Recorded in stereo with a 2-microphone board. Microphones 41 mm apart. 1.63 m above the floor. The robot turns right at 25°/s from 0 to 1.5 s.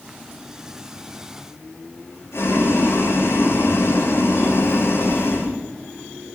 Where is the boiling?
85° left, 8 m.